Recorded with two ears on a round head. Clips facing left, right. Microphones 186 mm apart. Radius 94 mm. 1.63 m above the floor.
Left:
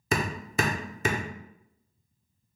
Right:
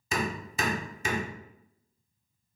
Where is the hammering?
45° left (ahead or behind), 0.6 m.